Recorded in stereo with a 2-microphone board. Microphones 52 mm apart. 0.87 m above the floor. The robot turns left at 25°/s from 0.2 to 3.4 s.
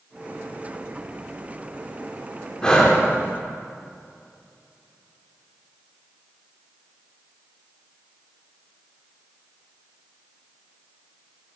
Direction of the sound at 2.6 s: 15° left (ahead or behind).